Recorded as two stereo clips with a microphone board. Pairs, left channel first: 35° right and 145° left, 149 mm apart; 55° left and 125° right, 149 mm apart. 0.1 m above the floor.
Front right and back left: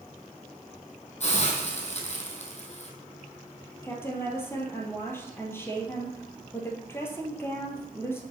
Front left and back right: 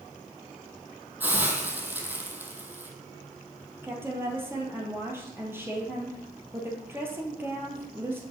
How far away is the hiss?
About 1.4 m.